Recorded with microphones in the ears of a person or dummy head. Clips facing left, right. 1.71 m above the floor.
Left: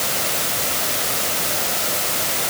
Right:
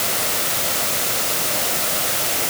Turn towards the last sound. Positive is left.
No sound to turn to.